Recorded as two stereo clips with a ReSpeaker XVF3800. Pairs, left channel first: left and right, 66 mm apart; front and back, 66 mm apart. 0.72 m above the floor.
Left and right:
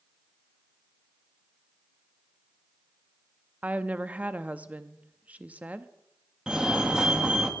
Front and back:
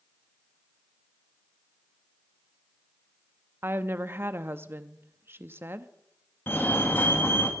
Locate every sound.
3.6 s a woman speaking: 145° right, 0.6 m
6.5 s a fire alarm: 20° right, 1.7 m